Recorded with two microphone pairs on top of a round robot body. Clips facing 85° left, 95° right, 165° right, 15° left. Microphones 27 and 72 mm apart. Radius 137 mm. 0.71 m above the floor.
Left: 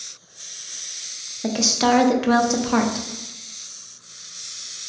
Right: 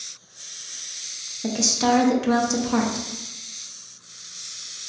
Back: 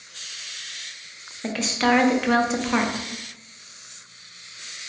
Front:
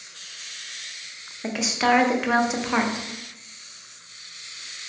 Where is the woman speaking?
105° left, 0.5 m.